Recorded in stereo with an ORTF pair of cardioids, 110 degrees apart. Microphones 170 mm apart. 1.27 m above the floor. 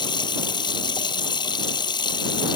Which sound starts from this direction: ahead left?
Running water, at 0.0 s.